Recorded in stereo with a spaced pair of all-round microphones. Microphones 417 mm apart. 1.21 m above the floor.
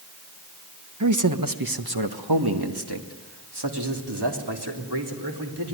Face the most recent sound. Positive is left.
turn(degrees=-85)